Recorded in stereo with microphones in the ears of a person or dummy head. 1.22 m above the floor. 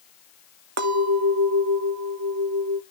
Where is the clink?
70° right (ahead or behind), 0.8 m.